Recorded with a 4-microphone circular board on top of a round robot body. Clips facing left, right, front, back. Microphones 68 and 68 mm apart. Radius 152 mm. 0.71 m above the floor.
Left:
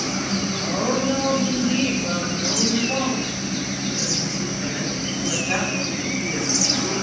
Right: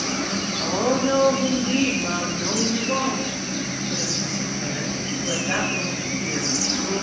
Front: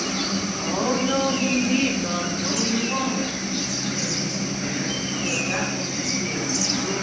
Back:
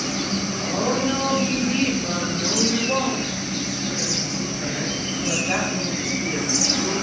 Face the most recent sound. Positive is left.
turn(degrees=-145)